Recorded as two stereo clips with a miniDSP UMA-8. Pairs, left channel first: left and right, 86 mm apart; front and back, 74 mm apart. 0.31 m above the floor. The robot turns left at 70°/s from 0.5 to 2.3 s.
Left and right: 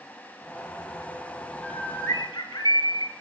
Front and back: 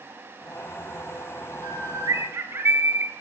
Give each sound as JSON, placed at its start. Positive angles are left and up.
{"t": 1.6, "sound": "a bird", "azimuth_deg": 175, "distance_m": 2.0}